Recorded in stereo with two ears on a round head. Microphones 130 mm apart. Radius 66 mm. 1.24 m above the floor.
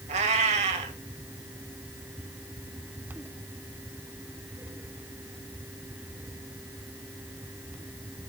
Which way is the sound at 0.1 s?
50° right (ahead or behind).